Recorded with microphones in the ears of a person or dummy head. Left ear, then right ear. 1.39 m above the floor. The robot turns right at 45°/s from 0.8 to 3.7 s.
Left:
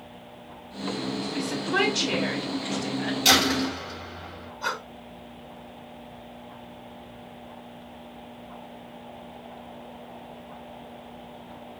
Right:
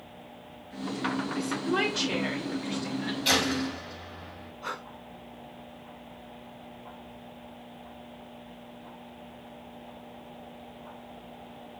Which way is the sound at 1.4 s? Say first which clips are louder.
Left 6 dB; 25° left.